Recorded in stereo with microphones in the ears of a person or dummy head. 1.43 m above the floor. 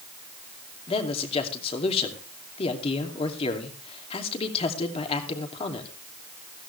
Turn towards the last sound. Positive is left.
turn(degrees=30)  # may be behind; listen again after turning